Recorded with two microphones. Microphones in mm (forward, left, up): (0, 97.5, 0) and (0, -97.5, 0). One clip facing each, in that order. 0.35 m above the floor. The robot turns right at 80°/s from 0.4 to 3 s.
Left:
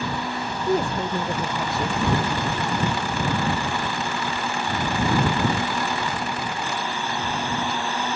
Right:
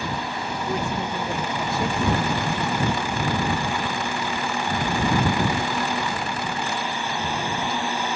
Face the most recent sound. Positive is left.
turn(degrees=-80)